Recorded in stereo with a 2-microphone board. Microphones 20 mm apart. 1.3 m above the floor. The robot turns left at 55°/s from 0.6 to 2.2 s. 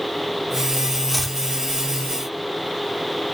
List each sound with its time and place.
1.1 s chopping: 5° right (ahead or behind); by 1.4 s 15° left (ahead or behind)